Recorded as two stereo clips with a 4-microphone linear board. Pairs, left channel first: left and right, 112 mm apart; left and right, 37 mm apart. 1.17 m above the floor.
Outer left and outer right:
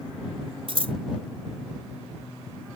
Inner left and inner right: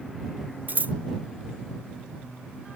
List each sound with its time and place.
0.7 s scissors: 55° right (ahead or behind)